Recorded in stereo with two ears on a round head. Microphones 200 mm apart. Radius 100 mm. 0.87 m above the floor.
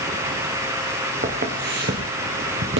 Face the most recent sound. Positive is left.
turn(degrees=-60)  # may be behind; listen again after turning